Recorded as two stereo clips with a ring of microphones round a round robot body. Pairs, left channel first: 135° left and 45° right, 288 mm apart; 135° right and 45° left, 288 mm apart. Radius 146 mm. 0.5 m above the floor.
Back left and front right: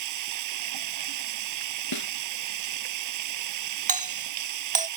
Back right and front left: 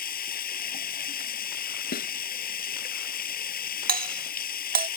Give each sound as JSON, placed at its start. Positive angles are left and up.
{"t": 0.0, "sound": "running water", "azimuth_deg": -75}
{"t": 1.9, "sound": "a snare drum", "azimuth_deg": 165}
{"t": 3.9, "sound": "a doorbell", "azimuth_deg": 5}